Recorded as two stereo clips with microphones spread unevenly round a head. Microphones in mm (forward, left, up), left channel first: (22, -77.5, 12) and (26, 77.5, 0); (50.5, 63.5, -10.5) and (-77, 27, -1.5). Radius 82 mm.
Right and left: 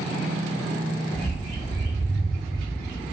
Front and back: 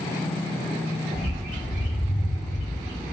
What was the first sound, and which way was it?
A bird, 175° right.